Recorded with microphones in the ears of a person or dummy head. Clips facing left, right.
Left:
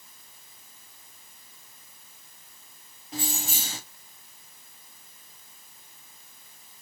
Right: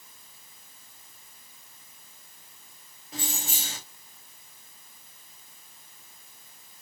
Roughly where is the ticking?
I don't hear ticking.